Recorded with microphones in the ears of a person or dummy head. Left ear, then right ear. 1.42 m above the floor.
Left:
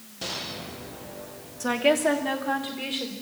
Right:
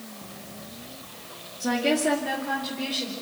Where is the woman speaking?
40° left (ahead or behind), 2 m; by 3.1 s 30° left (ahead or behind), 4 m.